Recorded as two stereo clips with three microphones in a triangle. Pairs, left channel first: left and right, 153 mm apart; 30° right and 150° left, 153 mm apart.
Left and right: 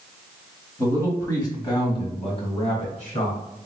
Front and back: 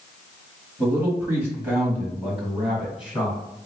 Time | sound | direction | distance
0.8 | a man speaking | 140° left | 1.2 m